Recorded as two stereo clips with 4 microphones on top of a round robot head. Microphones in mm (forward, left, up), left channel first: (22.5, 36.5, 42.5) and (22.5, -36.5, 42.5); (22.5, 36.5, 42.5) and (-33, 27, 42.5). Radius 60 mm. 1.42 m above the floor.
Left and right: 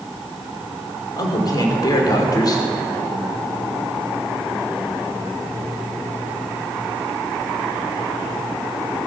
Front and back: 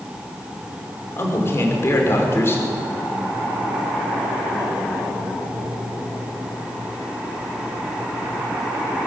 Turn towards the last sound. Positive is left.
turn(degrees=55)